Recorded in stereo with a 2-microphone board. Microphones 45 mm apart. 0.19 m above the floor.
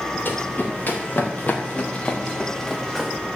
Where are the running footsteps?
45° left (ahead or behind), 5 m; by 3.1 s centre (ahead or behind), 1.9 m.